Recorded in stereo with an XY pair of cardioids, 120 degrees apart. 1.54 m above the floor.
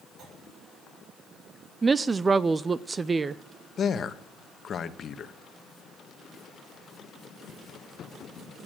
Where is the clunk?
55° right, 7 m.